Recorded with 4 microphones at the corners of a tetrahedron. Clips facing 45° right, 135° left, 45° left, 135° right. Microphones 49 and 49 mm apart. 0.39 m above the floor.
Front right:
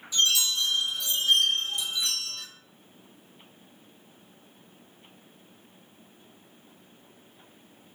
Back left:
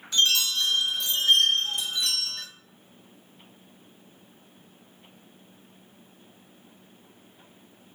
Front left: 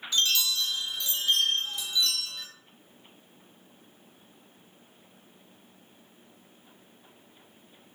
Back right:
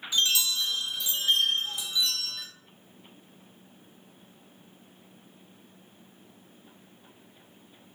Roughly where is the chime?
Behind left.